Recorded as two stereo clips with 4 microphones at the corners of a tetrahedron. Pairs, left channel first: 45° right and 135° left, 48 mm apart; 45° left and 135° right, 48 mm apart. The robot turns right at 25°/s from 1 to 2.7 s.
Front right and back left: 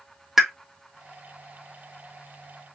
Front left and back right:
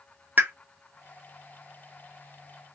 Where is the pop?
145° right, 0.6 m.